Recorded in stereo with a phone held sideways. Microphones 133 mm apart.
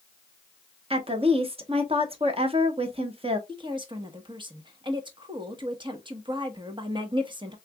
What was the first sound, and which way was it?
A woman speaking, 45° right (ahead or behind).